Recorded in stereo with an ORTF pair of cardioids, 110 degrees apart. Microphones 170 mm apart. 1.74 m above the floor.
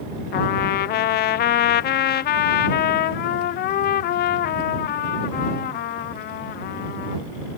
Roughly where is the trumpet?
Ahead left.